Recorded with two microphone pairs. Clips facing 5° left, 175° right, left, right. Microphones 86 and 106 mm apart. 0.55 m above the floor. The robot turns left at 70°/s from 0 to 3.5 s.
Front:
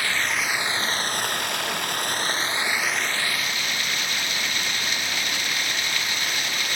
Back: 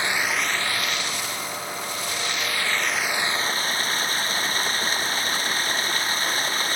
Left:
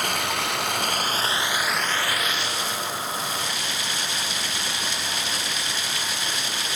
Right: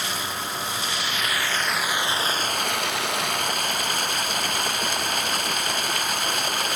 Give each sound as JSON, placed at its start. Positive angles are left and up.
{"t": 0.0, "sound": "running water", "azimuth_deg": 120}